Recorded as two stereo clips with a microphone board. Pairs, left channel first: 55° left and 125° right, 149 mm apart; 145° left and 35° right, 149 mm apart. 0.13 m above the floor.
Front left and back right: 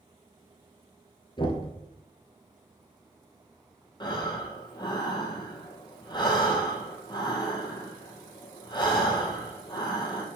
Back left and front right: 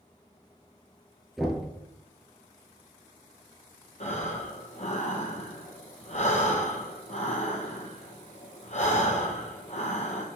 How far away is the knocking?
About 0.8 m.